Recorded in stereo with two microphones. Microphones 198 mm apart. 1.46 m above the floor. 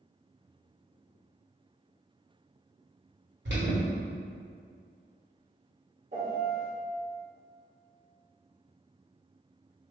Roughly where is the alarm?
Right.